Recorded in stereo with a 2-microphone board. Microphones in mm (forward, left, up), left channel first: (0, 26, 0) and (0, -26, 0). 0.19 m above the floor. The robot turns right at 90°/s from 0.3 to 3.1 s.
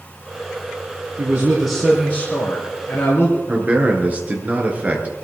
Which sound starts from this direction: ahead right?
A man speaking, at 1.2 s.